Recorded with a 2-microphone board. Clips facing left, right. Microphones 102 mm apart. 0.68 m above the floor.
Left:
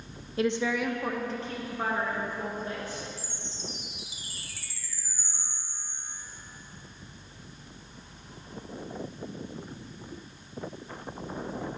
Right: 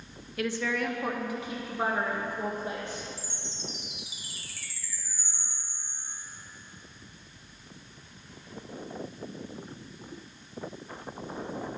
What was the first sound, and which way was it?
A woman speaking, 30° left (ahead or behind).